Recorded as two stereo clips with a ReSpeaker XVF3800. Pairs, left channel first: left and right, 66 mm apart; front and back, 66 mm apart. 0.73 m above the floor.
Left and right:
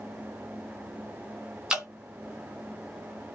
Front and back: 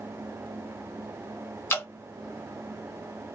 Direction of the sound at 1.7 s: 20° right.